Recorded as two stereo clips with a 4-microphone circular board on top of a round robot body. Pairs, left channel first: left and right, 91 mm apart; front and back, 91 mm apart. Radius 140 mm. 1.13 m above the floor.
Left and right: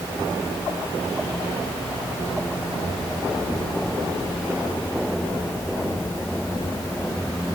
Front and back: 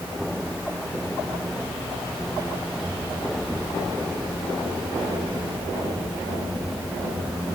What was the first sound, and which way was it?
Only background noise.